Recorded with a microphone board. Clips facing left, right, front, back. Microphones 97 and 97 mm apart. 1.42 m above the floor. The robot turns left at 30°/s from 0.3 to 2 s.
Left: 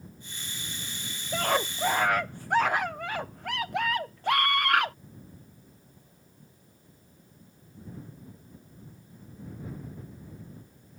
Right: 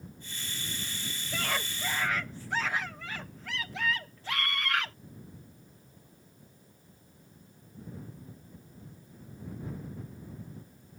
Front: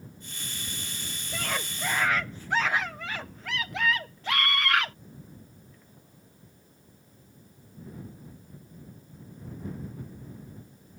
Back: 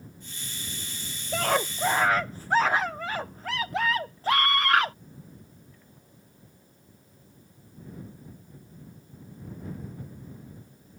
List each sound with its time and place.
1.3 s a scream: 145° left; by 5.0 s 125° left